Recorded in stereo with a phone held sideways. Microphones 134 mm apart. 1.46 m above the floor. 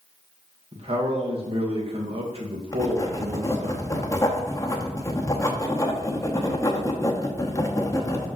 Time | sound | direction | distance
0.7 | a man speaking | 45° right (ahead or behind) | 1.7 m
2.7 | writing | 25° left (ahead or behind) | 0.9 m